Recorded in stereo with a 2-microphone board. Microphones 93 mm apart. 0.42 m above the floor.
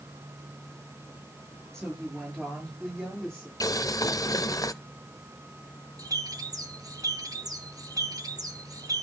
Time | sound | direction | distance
1.7 | a woman speaking | 5° left (ahead or behind) | 6.5 m
3.6 | boiling | 40° left (ahead or behind) | 0.5 m
6.0 | a bird | 40° right (ahead or behind) | 0.9 m